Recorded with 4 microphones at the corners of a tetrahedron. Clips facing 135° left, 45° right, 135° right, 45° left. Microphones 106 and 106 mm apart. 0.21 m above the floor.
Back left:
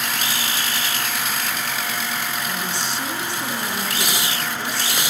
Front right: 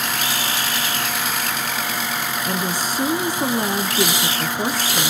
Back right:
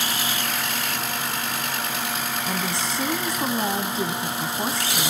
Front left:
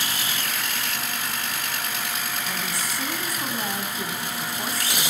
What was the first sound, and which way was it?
A woman speaking, 75° right.